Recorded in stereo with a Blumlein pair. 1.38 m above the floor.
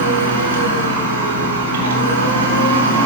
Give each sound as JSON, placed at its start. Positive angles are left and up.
{"t": 0.0, "sound": "a machine running", "azimuth_deg": -60, "distance_m": 1.6}